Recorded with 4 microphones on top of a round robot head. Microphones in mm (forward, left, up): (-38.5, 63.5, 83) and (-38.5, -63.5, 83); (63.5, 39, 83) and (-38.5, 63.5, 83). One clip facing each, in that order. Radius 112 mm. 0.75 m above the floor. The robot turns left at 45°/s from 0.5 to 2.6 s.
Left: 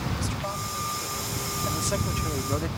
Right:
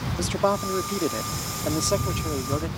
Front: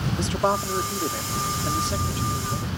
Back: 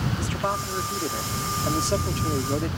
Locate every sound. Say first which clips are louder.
0.2 s a man speaking: right 9 dB, front 4 dB; 80° right; by 2.8 s 175° right